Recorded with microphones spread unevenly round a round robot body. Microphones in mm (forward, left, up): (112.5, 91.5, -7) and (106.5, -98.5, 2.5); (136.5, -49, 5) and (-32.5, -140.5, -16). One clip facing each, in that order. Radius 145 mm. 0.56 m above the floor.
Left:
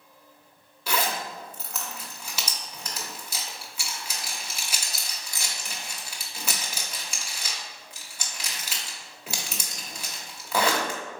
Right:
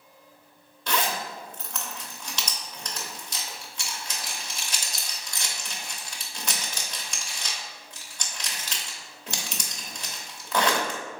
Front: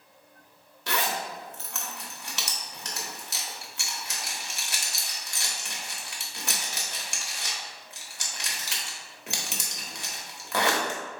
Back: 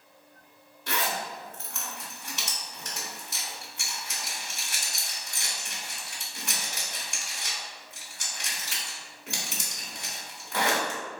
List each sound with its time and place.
0.9 s a zipper: 5° left, 1.3 m